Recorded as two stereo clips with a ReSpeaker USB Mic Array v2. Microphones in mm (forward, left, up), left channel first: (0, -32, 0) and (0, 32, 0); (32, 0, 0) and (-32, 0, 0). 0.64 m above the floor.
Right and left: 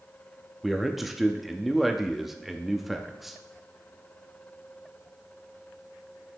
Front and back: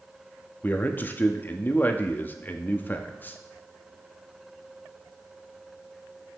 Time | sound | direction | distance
0.6 | a man speaking | straight ahead | 0.6 m